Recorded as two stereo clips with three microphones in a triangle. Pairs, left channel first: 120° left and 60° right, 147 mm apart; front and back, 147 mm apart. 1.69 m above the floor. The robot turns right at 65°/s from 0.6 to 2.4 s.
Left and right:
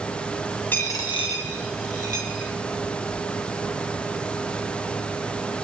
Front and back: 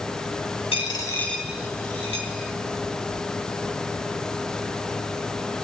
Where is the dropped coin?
45° left, 3 m; by 2.5 s 155° left, 3 m.